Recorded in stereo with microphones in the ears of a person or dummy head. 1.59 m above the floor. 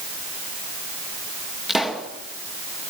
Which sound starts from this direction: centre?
A pop, at 1.7 s.